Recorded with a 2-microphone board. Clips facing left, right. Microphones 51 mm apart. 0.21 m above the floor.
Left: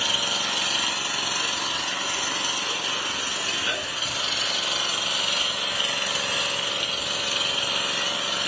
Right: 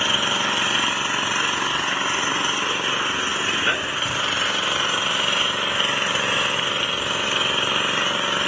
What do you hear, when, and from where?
0.0 s an engine running: 35° right (ahead or behind), 1.2 m